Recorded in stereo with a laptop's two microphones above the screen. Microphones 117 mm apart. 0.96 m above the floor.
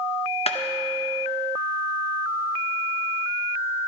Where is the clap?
60° left (ahead or behind), 0.8 m.